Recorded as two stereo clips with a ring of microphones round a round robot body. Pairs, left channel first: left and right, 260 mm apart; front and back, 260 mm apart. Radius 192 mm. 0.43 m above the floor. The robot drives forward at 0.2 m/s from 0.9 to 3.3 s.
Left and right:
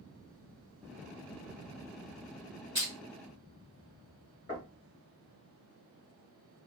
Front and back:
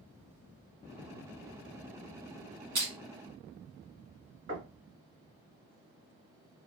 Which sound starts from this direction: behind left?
Knocking, at 4.5 s.